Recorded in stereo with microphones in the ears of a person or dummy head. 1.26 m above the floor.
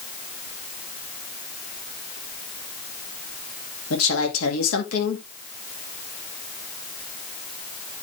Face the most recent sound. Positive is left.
turn(degrees=85)